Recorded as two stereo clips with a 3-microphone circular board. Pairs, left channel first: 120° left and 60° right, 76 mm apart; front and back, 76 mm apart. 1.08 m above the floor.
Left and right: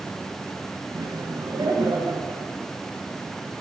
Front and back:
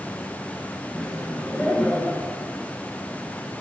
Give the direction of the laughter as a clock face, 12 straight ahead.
3 o'clock.